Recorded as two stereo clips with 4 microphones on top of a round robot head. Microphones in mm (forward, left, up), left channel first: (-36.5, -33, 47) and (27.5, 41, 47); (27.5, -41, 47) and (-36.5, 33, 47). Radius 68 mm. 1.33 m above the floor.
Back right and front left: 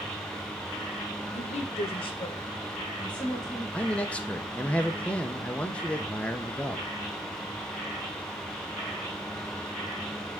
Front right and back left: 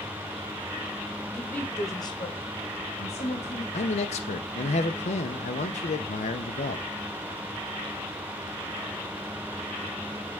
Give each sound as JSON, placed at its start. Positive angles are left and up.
{"t": 1.3, "sound": "a woman speaking", "azimuth_deg": -130, "distance_m": 1.3}
{"t": 3.7, "sound": "a man speaking", "azimuth_deg": -50, "distance_m": 0.8}